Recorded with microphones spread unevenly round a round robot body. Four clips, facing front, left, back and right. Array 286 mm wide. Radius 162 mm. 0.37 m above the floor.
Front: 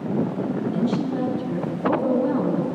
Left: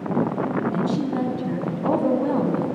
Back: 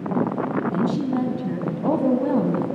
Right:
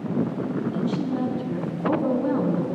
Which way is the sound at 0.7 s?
150° left.